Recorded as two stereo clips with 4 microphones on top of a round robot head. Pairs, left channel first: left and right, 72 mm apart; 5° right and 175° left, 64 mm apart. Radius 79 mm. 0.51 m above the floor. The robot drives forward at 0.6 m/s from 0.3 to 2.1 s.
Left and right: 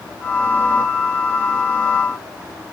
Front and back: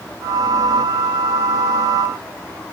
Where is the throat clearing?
No throat clearing in this recording.